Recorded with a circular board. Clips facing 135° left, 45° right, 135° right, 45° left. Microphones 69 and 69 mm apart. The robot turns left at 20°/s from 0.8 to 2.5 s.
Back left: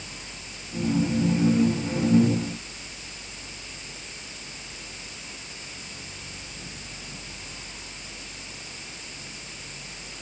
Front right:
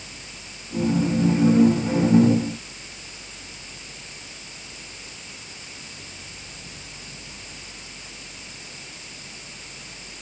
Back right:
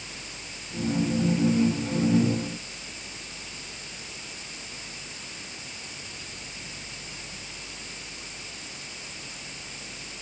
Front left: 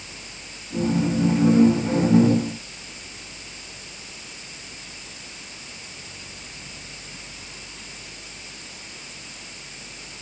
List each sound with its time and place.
Only background noise.